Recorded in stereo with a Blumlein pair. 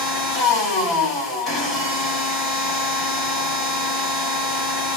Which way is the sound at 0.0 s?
25° left.